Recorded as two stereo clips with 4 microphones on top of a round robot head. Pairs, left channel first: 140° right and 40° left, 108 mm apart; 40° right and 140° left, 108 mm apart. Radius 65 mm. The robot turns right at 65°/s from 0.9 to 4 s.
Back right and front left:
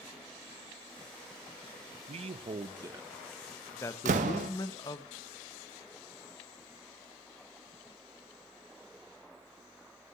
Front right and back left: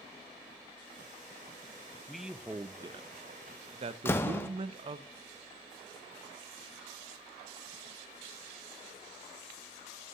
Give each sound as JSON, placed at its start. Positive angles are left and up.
{"t": 2.1, "sound": "a man speaking", "azimuth_deg": 45, "distance_m": 0.5}
{"t": 4.0, "sound": "a door slam", "azimuth_deg": 30, "distance_m": 0.6}